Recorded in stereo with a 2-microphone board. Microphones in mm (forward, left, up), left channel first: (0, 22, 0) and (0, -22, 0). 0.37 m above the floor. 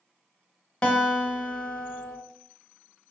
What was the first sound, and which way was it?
A guitar, 20° left (ahead or behind).